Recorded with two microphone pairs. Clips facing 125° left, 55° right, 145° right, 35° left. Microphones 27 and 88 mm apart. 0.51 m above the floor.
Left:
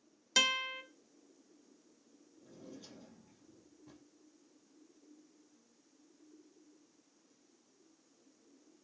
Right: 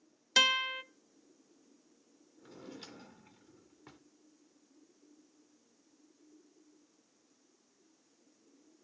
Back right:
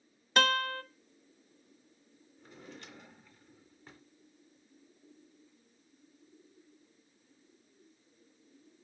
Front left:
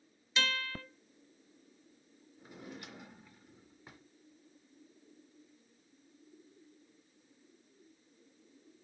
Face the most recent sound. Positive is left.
turn(degrees=-40)